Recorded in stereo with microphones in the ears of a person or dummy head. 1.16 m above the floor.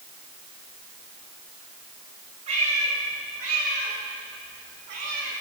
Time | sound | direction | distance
2.5 | a cat meowing | 30° right (ahead or behind) | 7 m